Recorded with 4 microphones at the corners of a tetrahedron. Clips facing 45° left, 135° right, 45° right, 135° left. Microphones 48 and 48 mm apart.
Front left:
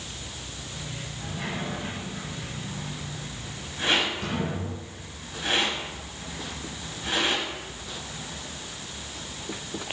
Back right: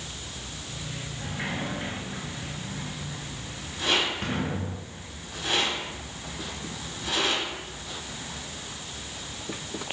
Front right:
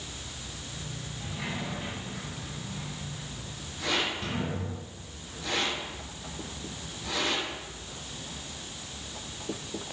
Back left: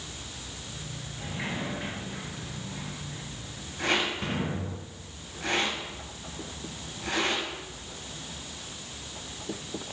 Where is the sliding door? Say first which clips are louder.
Back right 1 dB, back left 2 dB; straight behind, 3.5 m.